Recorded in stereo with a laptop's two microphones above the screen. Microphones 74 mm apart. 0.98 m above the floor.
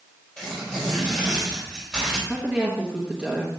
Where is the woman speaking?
15° right (ahead or behind), 1.0 m.